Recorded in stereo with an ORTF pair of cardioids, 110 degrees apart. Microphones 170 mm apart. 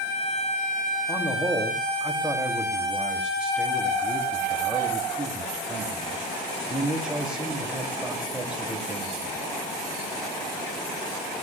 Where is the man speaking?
5° right, 2.5 m.